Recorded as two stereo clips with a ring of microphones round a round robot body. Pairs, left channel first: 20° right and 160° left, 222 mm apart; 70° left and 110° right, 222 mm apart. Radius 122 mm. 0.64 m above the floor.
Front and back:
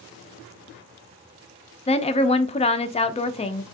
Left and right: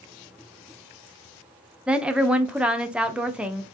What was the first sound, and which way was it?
A woman speaking, 30° right.